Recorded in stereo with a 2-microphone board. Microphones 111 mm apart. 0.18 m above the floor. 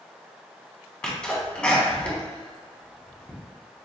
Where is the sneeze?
10° left (ahead or behind), 1.6 m.